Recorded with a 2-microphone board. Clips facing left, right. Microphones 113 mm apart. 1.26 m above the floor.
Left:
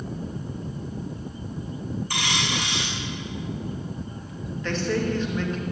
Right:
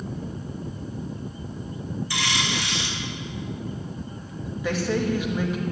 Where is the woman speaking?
10° right (ahead or behind), 2.5 m.